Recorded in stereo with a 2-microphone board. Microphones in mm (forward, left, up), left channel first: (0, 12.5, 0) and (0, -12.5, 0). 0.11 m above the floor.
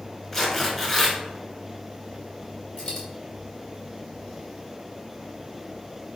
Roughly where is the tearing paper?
Centre.